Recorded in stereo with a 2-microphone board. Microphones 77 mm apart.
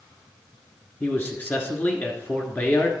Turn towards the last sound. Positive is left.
turn(degrees=25)  # may be behind; listen again after turning